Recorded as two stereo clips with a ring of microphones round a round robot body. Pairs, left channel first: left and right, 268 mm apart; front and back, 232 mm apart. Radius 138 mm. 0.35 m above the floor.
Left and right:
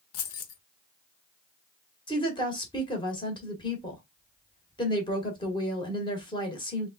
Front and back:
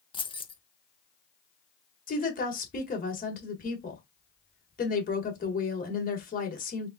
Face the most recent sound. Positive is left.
turn(degrees=25)